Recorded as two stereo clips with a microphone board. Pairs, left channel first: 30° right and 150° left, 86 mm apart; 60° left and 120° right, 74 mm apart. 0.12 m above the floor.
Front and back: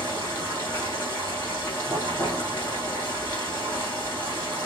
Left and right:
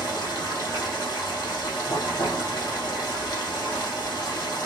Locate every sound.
0.0 s running water: 95° left, 4 m